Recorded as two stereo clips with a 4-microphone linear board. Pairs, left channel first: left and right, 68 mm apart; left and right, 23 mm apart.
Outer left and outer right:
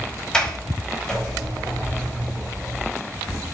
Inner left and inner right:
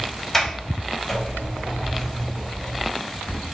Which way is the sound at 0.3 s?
15° left (ahead or behind).